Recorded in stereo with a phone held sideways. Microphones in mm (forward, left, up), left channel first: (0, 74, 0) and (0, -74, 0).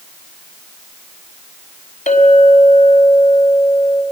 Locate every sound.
2.1 s a clink: 55° left (ahead or behind), 5 m